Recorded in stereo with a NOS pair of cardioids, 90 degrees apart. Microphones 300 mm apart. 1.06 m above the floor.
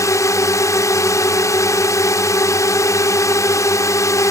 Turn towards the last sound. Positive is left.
turn(degrees=10)